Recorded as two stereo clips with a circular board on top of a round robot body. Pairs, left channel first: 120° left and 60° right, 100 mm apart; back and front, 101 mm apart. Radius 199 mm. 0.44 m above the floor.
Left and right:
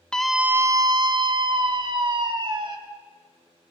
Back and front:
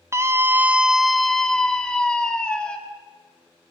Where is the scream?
45° left, 0.8 m; by 2.8 s 100° right, 2.5 m.